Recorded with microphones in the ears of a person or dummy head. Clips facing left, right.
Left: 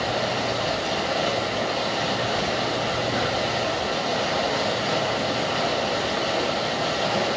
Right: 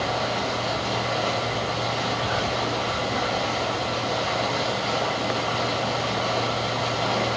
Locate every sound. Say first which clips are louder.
0.0 s running water: left 1 dB; 10° left (ahead or behind), 2.5 m